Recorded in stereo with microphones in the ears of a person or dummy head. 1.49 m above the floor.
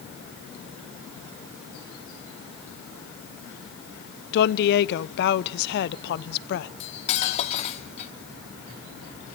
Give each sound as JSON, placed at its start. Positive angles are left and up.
{"t": 4.3, "sound": "a woman speaking", "side_deg": 55, "distance_m": 0.7}
{"t": 6.8, "sound": "cutlery clinking", "side_deg": 35, "distance_m": 1.5}